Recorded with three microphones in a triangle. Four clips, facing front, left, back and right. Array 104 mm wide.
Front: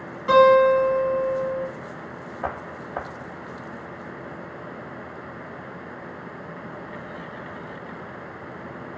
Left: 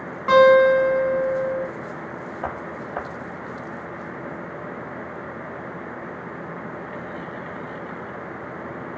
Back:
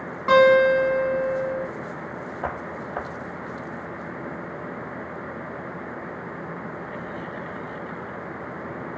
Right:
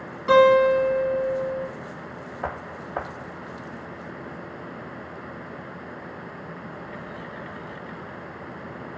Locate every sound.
0.3 s a guitar: 140° left, 1.2 m